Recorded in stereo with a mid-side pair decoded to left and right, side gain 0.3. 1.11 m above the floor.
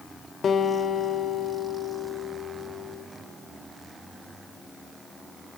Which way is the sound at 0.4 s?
70° left.